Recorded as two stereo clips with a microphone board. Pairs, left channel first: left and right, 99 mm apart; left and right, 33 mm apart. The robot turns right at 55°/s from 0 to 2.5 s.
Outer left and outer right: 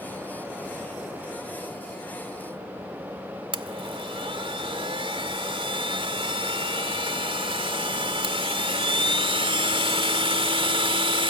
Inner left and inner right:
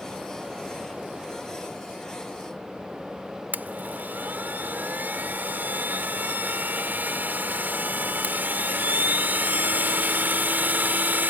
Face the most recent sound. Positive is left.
turn(degrees=-65)  # may be behind; listen again after turning